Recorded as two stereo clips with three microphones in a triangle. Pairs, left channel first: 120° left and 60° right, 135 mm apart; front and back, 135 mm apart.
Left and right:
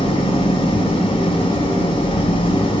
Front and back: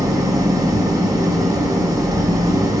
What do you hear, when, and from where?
0.0 s an engine running: 130° left, 1.3 m